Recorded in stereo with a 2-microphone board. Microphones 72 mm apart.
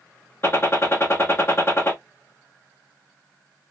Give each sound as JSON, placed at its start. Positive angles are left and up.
{"t": 0.4, "sound": "a gunshot", "side_deg": 35, "distance_m": 1.1}